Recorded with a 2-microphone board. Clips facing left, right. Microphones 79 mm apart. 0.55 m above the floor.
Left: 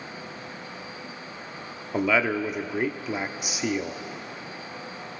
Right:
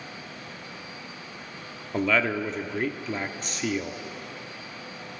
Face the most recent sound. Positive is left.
turn(degrees=10)  # may be behind; listen again after turning